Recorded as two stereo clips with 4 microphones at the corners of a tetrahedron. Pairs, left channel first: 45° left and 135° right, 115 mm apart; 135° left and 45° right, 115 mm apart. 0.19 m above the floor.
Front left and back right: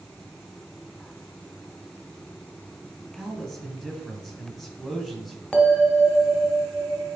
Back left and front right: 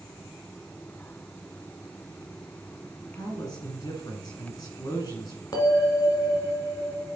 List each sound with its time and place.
3.1 s a man speaking: 130° left, 1.9 m
5.5 s a bell: 120° left, 1.5 m